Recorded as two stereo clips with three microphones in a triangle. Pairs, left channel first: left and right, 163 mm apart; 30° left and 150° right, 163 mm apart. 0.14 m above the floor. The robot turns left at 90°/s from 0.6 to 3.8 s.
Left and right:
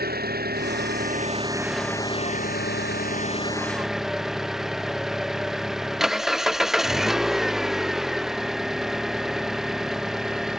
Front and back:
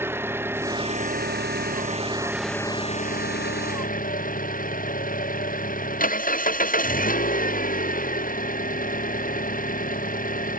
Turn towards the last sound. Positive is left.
turn(degrees=0)